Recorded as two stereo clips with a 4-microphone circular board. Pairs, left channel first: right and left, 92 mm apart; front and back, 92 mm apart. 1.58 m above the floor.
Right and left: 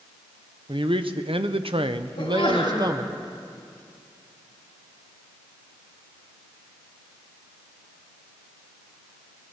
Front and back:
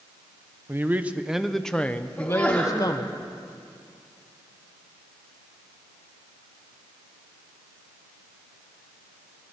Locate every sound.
0.7 s a man speaking: 115° left, 1.2 m; by 3.1 s 40° left, 1.4 m
2.2 s a sneeze: 80° right, 4 m